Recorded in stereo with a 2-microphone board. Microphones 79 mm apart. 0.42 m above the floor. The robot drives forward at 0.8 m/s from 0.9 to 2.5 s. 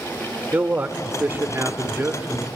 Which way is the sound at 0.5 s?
20° right (ahead or behind).